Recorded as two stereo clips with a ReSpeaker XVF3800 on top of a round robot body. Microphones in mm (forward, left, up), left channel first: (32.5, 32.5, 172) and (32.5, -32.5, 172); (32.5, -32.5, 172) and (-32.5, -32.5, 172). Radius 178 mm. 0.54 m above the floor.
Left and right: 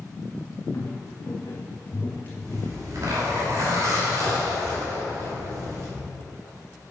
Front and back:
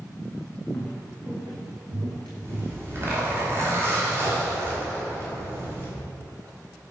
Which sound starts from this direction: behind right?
A zipper, at 2.5 s.